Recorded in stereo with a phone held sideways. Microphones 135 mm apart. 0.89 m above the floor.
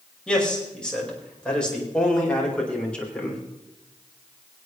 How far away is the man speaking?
About 5 m.